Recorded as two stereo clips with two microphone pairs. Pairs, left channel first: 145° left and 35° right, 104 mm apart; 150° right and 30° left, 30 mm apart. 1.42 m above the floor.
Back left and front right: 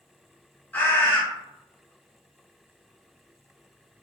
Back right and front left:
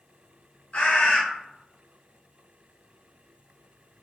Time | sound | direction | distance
0.7 | a bird | 150° right | 0.8 m